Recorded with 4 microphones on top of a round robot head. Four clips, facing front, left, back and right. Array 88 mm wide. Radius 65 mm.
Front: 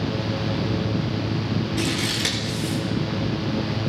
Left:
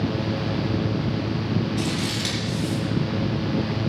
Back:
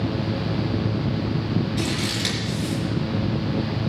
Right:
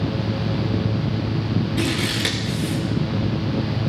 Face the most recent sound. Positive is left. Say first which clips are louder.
# right 3 dB, front 1 dB
turn(degrees=-60)